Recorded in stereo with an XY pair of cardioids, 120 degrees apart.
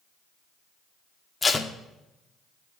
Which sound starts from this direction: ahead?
Tape being pulled, at 1.4 s.